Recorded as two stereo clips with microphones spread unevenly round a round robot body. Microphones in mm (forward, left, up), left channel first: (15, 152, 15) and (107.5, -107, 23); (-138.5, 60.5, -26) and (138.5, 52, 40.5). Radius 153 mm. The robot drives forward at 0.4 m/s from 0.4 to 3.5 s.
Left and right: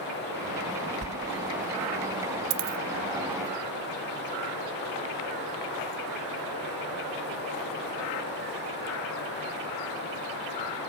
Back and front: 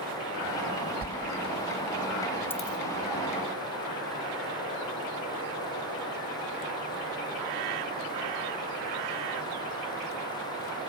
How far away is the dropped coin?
About 0.7 m.